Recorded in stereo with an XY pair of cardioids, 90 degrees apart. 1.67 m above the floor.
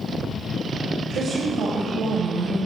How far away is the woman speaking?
About 6.5 m.